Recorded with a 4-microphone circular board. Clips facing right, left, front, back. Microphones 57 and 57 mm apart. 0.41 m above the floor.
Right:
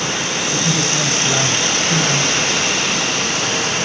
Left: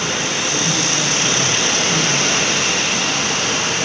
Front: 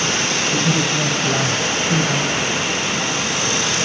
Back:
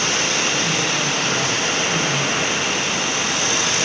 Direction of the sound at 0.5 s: 35° right.